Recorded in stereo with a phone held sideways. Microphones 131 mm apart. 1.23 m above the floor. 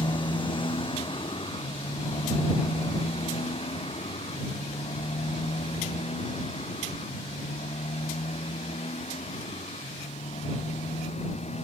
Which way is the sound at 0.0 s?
40° left (ahead or behind).